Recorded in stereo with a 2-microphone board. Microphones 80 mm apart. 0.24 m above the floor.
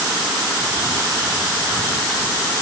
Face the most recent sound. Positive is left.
No sound to turn to.